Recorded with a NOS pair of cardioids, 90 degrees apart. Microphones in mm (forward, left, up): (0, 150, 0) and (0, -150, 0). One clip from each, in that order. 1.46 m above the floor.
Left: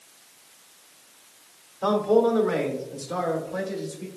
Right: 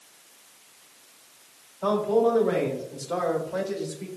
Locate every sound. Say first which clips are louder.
1.8 s a man speaking: left 2 dB; 35° left, 1.1 m; by 4.1 s 30° right, 1.3 m